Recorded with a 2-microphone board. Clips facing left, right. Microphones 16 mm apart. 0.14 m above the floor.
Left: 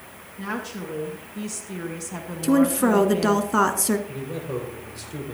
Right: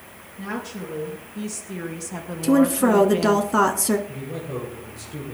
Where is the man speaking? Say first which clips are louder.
Left 1 dB; 50° left (ahead or behind), 7.5 m.